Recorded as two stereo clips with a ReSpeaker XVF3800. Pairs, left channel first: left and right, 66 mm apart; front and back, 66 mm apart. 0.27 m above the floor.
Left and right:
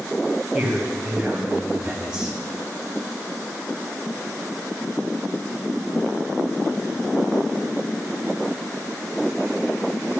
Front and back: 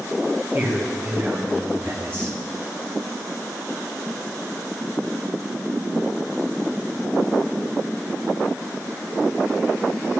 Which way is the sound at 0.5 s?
160° right.